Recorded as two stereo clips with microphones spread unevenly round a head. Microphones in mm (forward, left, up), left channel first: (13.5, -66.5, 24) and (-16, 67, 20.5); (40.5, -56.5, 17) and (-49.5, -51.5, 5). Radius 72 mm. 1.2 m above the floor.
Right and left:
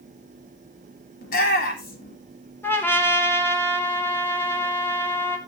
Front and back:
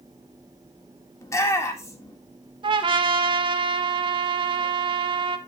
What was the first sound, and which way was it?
A shout, 60° right.